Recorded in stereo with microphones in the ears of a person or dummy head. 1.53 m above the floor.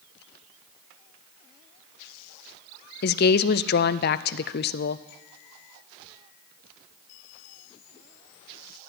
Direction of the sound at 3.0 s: 45° left (ahead or behind).